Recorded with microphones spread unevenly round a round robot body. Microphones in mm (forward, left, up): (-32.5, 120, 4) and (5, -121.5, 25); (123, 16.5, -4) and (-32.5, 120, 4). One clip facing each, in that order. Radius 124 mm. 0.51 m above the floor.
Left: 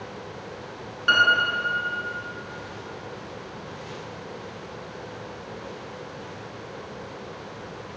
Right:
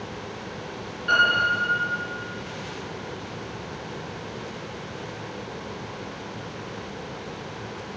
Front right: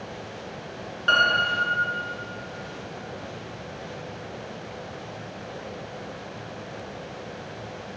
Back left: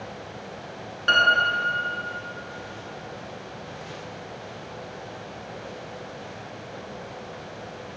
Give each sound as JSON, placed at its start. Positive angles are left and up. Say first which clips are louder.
{"t": 1.1, "sound": "a piano", "louder": "even, back left 1 dB", "azimuth_deg": 75, "distance_m": 2.5}